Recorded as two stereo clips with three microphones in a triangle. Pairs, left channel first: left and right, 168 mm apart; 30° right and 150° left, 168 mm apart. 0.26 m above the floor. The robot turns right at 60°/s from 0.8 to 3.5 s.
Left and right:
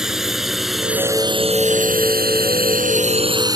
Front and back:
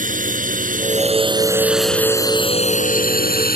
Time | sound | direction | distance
0.0 | a drone | 175° right | ?